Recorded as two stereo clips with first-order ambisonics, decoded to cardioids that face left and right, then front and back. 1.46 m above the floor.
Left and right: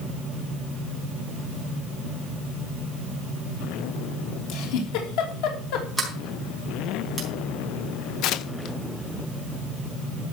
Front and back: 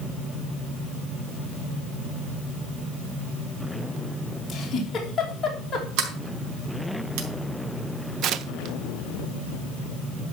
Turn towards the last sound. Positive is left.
turn(degrees=130)